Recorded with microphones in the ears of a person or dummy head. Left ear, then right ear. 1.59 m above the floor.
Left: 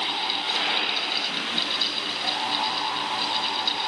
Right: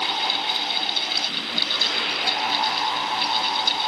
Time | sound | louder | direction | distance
0.0 | a fan | right 3 dB | 15° right (ahead or behind) | ?